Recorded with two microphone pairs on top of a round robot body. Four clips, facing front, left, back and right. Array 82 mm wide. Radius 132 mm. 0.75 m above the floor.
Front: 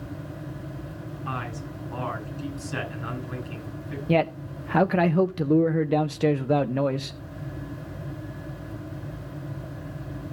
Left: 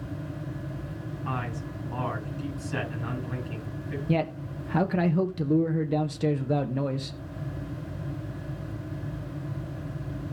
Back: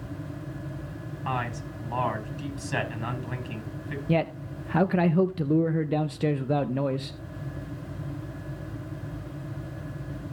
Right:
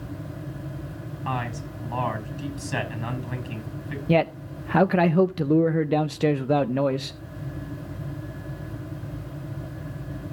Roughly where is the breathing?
No breathing in this recording.